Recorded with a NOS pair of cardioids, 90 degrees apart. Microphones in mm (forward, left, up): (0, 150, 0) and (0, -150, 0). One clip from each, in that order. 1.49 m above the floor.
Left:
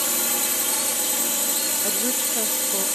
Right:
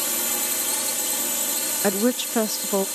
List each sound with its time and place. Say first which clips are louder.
0.0 s a drone: left 2 dB; 40° left
1.8 s a woman speaking: right 3 dB; 40° right